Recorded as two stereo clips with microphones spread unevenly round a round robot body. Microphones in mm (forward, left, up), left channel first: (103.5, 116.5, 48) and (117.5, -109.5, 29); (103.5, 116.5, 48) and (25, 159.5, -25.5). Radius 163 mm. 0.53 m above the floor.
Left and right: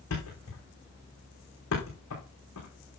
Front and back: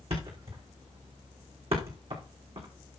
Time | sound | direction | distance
0.1 | a thud | 145° left | 5 m